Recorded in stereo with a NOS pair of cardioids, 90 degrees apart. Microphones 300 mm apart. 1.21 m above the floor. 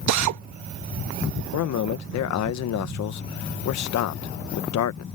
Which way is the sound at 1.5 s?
70° left.